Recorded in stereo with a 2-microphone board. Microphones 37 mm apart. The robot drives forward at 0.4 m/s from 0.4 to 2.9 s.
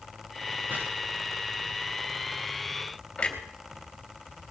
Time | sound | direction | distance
0.7 | chopping | 60° right (ahead or behind) | 9.5 m
3.2 | a clunk | 30° left (ahead or behind) | 3 m